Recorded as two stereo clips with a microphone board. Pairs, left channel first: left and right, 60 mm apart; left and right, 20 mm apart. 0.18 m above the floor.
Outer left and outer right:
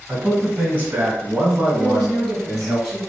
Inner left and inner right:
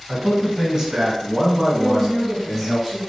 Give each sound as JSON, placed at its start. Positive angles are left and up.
{"t": 0.1, "sound": "a man speaking", "side_deg": -20, "distance_m": 1.3}
{"t": 1.8, "sound": "a woman speaking", "side_deg": 0, "distance_m": 1.6}